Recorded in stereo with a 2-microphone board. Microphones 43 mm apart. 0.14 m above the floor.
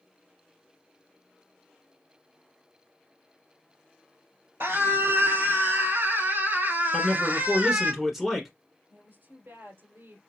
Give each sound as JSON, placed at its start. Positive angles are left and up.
{"t": 4.6, "sound": "a scream", "side_deg": -65, "distance_m": 3.5}
{"t": 6.9, "sound": "a man speaking", "side_deg": -5, "distance_m": 1.3}
{"t": 8.9, "sound": "a woman speaking", "side_deg": -65, "distance_m": 3.0}